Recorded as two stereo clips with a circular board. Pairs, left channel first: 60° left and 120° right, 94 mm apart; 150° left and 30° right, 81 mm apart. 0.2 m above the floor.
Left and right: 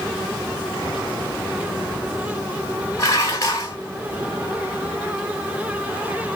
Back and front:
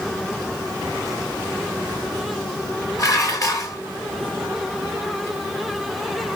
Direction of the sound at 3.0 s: 110° left.